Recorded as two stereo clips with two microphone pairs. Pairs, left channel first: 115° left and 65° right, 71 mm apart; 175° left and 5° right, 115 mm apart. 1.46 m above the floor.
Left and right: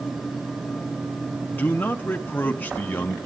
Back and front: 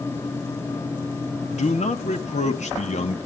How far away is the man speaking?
About 1.5 m.